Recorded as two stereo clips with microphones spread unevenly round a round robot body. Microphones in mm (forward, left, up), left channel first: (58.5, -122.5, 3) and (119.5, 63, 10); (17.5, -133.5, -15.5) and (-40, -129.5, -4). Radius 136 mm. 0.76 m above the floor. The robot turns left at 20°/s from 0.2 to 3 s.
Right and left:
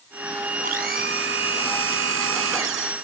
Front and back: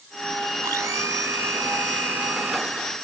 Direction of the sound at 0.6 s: 135° left.